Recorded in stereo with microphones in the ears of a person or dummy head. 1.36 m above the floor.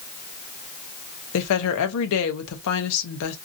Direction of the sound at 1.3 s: 70° left (ahead or behind).